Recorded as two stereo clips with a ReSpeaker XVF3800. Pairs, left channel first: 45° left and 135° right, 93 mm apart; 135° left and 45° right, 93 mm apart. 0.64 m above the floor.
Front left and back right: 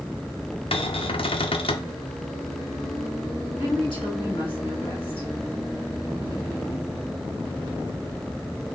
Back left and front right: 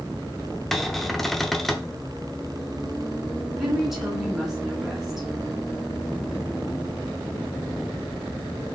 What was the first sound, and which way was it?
A cupboard door, 45° left.